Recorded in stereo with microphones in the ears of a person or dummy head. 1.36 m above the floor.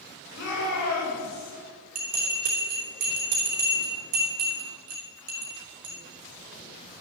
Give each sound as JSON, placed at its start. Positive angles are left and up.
{"t": 0.3, "sound": "a shout", "side_deg": 70, "distance_m": 6.5}
{"t": 1.9, "sound": "a bell", "side_deg": -50, "distance_m": 4.5}